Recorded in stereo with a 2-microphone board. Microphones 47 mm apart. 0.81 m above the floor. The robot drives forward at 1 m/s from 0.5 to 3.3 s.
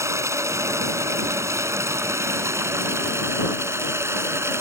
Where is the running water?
85° right; by 4.6 s 65° right (ahead or behind).